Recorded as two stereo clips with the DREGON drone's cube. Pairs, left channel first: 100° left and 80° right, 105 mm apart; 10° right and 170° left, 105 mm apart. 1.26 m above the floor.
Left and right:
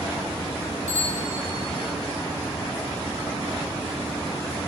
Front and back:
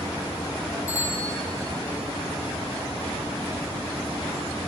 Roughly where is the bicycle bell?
Left.